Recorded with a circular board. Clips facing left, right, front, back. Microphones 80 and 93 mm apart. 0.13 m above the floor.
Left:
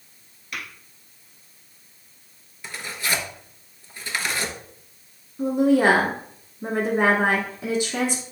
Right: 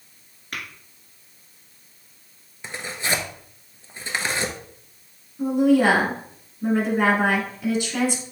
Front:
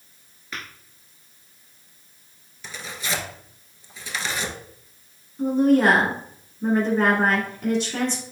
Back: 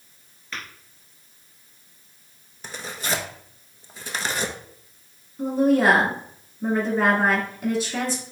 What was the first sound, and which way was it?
Tapping, 75° right.